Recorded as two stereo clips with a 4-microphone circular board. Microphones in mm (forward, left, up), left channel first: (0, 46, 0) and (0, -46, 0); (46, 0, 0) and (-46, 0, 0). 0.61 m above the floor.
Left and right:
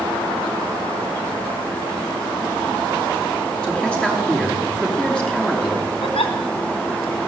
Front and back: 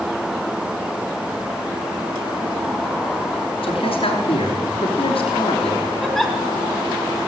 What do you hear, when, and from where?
3.6 s a man speaking: 10° left, 7 m
6.0 s a giggle: 85° left, 2.5 m